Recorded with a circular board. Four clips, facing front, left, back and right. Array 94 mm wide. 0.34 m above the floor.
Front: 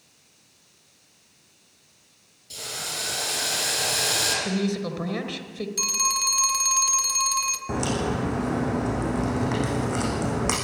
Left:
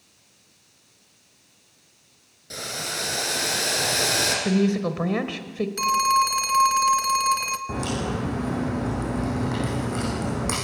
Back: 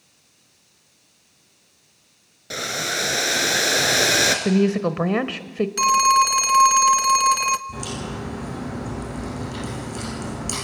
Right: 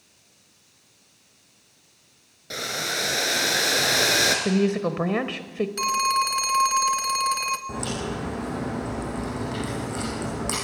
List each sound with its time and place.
2.5 s boiling: 160° right, 2.5 m
4.5 s a woman speaking: 170° right, 1.1 m
5.8 s a phone ringing: straight behind, 0.8 m
7.7 s a crack: 10° left, 8.5 m